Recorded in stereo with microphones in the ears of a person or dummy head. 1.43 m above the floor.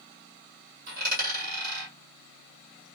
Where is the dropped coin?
40° right (ahead or behind), 1.7 m.